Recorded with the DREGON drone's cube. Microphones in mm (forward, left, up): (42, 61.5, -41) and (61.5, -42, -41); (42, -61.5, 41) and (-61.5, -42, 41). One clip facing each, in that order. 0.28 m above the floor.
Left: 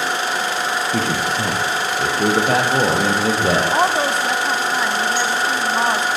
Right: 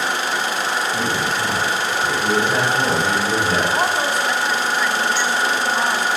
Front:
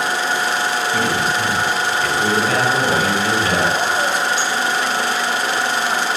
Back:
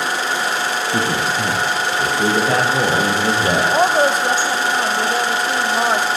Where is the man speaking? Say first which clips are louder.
Left 1 dB, even; 115° left, 6 m; by 3.6 s 110° left, 8 m.